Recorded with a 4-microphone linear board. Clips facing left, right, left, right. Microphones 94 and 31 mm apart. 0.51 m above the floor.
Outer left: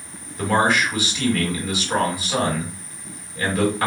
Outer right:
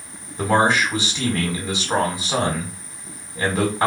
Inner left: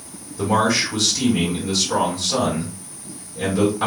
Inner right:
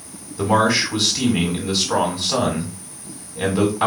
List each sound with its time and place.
0.4 s a man speaking: 30° right (ahead or behind), 1.5 m